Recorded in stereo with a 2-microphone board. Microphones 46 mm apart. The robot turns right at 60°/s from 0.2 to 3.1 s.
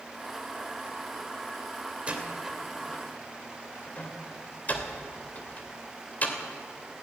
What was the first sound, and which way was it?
A door slam, 25° right (ahead or behind).